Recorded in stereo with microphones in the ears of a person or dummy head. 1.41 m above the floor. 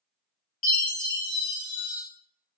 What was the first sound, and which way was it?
A chime, 35° left (ahead or behind).